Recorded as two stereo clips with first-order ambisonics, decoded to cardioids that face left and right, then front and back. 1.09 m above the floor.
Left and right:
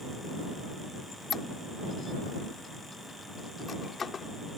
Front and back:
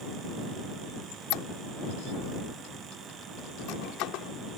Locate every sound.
1.1 s a squeak: 25° left